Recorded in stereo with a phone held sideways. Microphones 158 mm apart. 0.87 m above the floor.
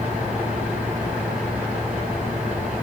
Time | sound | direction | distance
0.0 | a fan | 10° right (ahead or behind) | 7.5 m